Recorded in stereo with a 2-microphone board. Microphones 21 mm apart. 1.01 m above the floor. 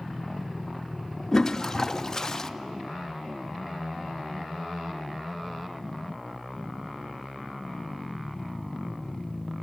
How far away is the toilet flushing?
About 0.5 m.